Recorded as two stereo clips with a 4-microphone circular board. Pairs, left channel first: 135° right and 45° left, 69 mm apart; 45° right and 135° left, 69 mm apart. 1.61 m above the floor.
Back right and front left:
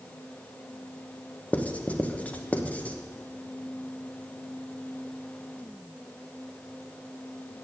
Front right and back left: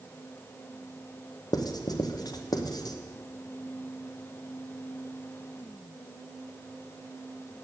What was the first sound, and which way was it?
Writing, 65° right.